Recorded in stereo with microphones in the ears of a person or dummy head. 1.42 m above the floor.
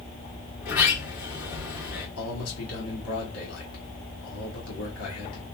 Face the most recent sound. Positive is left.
turn(degrees=75)  # may be behind; listen again after turning